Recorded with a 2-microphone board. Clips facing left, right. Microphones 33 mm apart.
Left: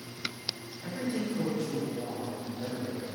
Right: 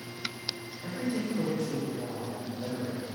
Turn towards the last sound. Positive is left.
turn(degrees=70)  # may be behind; listen again after turning